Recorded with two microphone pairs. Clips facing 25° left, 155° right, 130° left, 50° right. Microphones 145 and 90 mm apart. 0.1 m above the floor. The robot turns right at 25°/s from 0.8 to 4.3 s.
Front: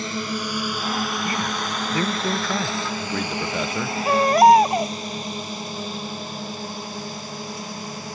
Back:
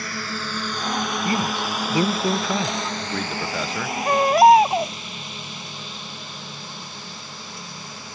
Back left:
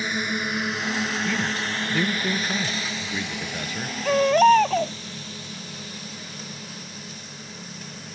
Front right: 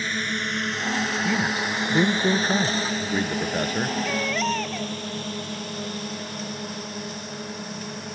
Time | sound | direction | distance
0.0 | a drone | 65° left | ?
1.2 | a man speaking | 115° right | ?
4.0 | a baby crying | 110° left | ?